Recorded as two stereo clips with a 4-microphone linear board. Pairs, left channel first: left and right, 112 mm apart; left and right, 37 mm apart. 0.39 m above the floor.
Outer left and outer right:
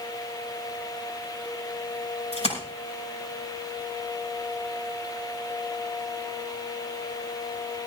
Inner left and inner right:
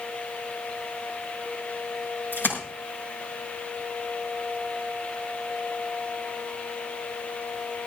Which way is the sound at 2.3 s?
65° left (ahead or behind).